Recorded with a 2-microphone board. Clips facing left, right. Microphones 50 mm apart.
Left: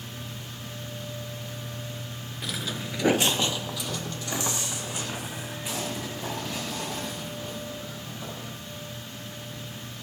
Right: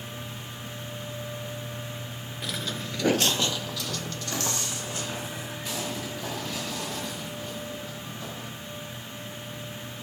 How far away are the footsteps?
About 0.6 m.